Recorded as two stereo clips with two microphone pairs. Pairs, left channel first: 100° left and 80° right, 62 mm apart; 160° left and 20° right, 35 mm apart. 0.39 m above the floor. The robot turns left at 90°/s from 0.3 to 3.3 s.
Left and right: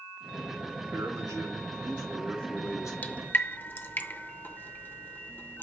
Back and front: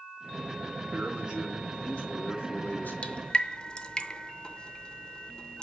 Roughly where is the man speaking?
Ahead right.